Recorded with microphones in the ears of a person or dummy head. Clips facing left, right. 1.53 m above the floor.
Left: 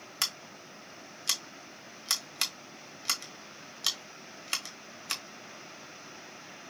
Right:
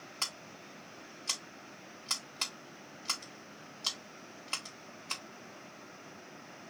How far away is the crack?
I don't hear a crack.